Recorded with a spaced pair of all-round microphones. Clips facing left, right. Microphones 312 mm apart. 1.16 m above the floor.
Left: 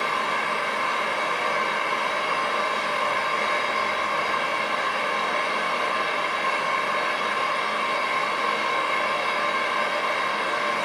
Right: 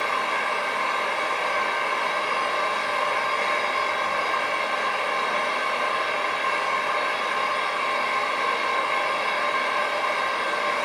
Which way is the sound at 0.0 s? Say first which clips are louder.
Even; 15° left (ahead or behind).